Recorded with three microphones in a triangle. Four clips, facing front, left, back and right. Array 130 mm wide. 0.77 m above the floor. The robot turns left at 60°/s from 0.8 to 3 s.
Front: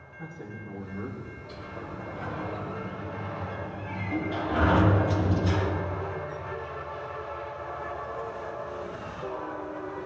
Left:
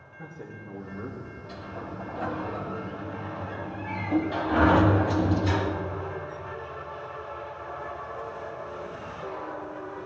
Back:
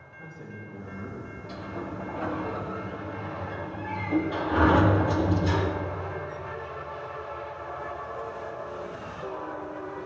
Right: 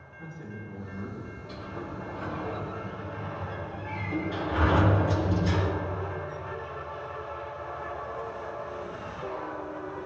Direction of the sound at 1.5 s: Straight behind.